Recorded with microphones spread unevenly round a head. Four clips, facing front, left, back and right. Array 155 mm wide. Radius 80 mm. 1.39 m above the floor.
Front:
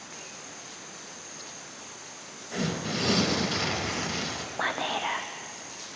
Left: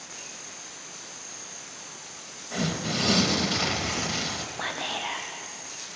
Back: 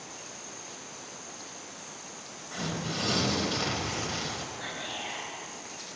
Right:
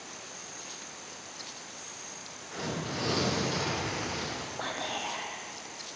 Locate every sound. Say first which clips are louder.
2.5 s tearing paper: left 6 dB, front 4 dB; 70° left, 2 m
4.6 s whispering: left 3 dB, front 9 dB; 10° left, 1.2 m